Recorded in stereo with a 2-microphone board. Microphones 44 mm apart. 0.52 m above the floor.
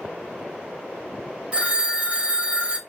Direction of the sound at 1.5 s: 30° right (ahead or behind).